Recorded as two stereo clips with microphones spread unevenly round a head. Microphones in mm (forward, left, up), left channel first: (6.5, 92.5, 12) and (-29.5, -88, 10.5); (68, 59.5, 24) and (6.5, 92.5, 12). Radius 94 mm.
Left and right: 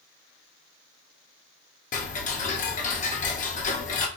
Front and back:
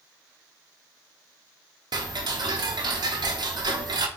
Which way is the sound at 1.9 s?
130° left.